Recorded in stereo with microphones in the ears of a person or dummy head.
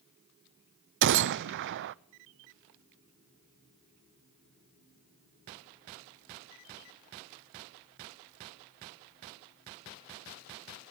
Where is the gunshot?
55° right (ahead or behind), 0.5 m.